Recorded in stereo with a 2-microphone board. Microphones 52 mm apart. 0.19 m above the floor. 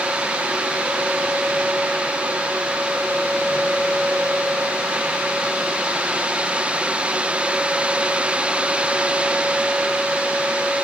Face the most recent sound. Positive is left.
No sound to turn to.